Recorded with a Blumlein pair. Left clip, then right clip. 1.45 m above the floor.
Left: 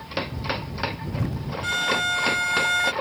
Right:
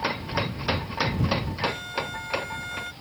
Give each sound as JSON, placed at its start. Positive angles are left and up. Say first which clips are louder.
{"t": 1.6, "sound": "a violin", "louder": "left 9 dB", "azimuth_deg": 35}